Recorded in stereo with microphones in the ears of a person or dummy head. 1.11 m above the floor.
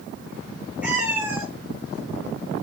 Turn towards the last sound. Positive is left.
turn(degrees=-20)  # may be behind; listen again after turning